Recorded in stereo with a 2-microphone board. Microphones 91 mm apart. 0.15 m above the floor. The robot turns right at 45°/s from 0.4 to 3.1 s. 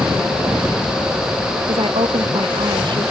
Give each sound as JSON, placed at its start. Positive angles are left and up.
{"t": 1.7, "sound": "a woman speaking", "azimuth_deg": -115}